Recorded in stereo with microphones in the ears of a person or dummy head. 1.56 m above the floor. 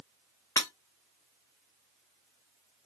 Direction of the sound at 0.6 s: 20° left (ahead or behind).